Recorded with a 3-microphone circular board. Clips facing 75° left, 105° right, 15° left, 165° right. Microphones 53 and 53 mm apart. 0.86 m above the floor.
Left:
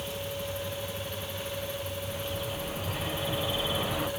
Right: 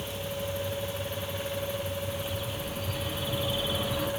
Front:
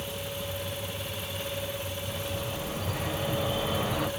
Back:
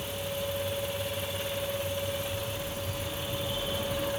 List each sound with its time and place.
2.1 s a bird: 10° left, 2 m